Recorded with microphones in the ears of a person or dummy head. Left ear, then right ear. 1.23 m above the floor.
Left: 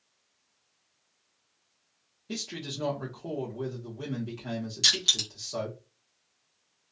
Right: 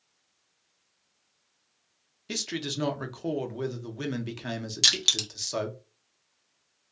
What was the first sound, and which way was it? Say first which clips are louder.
A man speaking: right 5 dB; 60° right (ahead or behind).